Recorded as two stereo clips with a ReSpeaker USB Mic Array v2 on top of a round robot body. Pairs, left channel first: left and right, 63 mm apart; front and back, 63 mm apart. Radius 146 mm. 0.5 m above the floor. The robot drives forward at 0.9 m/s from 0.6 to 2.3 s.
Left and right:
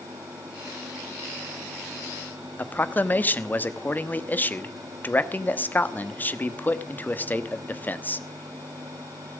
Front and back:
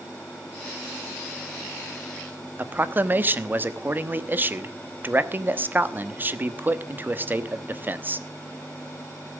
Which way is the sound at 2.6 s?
135° left.